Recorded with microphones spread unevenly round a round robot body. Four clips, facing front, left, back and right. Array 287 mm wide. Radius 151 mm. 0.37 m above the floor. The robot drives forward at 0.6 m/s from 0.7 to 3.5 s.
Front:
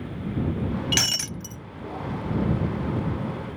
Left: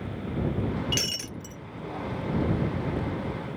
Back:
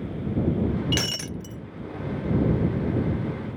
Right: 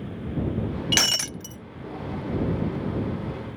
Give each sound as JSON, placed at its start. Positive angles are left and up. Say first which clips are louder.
{"t": 0.9, "sound": "breaking glass", "louder": "right 5 dB, back 1 dB", "azimuth_deg": -65}